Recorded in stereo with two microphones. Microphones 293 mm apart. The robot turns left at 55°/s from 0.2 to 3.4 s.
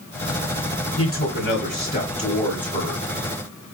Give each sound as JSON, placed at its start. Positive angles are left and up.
{"t": 1.0, "sound": "a man speaking", "azimuth_deg": 100, "distance_m": 1.3}